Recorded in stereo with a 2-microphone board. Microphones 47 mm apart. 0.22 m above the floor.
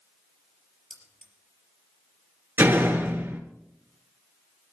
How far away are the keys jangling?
About 4 m.